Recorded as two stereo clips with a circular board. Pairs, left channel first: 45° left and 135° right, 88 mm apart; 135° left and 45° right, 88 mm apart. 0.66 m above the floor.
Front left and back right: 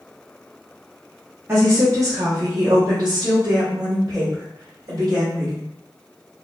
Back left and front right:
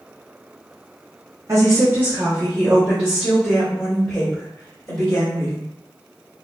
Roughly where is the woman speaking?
Right.